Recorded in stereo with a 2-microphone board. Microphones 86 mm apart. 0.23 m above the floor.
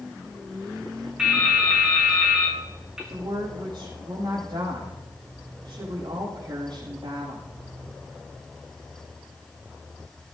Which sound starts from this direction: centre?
Dripping, at 1.2 s.